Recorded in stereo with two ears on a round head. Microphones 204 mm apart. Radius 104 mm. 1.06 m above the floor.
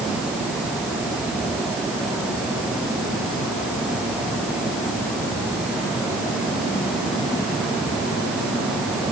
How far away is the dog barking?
I don't hear a dog barking.